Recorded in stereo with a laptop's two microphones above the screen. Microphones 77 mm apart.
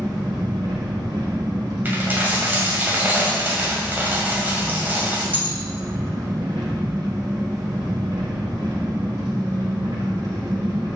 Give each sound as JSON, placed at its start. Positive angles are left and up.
{"t": 0.0, "sound": "an engine running", "side_deg": -65, "distance_m": 2.0}
{"t": 1.9, "sound": "a dropped coin", "side_deg": -20, "distance_m": 1.9}